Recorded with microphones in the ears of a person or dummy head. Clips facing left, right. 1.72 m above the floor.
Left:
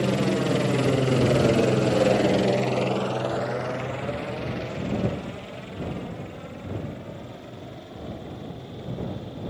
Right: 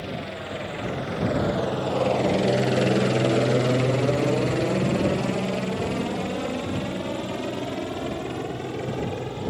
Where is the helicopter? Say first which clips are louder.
Left 10 dB; 60° left (ahead or behind); by 9.5 s 70° right (ahead or behind).